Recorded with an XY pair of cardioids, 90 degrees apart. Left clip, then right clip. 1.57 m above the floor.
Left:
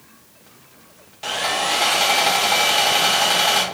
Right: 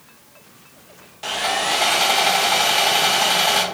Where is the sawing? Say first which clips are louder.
Even; 5° left, 0.6 m.